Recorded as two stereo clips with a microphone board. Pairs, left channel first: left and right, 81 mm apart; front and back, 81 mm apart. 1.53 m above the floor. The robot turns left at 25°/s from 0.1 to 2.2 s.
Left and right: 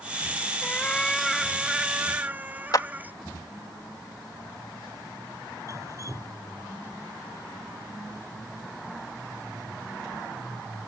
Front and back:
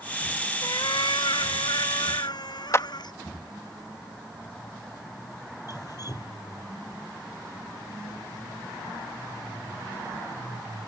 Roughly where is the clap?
Ahead left.